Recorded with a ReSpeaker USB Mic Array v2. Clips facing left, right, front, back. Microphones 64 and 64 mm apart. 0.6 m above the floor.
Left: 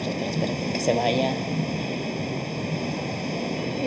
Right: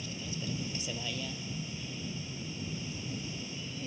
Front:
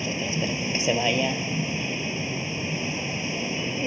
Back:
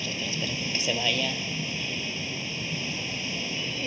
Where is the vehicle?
65° left.